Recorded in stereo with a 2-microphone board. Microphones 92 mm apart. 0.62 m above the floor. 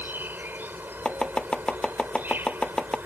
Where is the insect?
25° right (ahead or behind).